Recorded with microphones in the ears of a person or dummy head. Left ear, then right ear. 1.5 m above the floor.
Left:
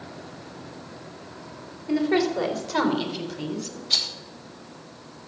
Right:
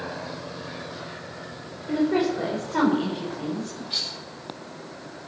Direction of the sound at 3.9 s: 40° left (ahead or behind).